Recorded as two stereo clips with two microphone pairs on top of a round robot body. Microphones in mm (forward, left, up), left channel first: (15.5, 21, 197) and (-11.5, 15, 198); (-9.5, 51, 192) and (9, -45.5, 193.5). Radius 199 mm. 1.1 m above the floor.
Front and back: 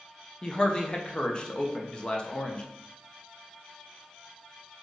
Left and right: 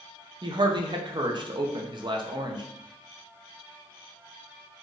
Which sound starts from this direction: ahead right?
A man speaking, at 0.4 s.